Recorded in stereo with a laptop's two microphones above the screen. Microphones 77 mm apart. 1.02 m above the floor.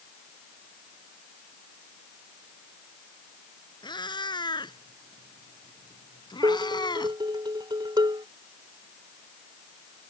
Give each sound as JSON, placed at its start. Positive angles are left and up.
{"t": 3.8, "sound": "a cat meowing", "side_deg": 85}
{"t": 6.4, "sound": "dishes clattering", "side_deg": -80}